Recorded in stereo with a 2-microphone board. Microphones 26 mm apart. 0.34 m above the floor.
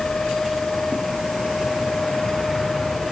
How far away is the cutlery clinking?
I don't hear cutlery clinking.